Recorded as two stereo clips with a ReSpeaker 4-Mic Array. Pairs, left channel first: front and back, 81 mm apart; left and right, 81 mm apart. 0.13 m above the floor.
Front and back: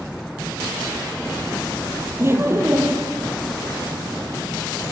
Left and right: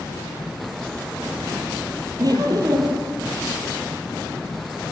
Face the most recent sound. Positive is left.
turn(degrees=-125)